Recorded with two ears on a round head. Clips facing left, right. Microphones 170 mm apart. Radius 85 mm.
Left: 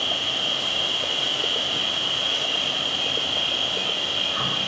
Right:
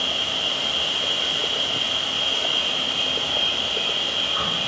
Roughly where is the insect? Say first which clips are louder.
Even; centre.